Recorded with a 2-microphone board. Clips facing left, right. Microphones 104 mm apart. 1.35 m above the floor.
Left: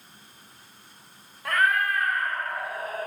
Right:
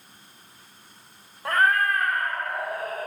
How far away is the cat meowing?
About 0.6 m.